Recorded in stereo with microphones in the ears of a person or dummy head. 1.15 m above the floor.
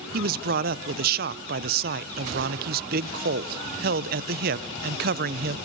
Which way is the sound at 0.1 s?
50° right (ahead or behind).